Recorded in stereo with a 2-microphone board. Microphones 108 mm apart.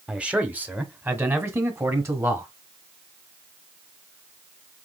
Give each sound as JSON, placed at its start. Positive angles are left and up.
{"t": 0.1, "sound": "a man speaking", "side_deg": -10, "distance_m": 1.3}